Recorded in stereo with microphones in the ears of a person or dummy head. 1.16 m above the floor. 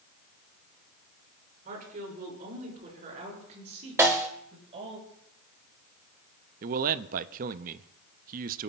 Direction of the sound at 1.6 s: 50° right (ahead or behind).